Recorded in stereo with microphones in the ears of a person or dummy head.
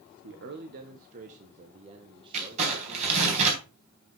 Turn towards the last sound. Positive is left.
turn(degrees=-35)  # may be behind; listen again after turning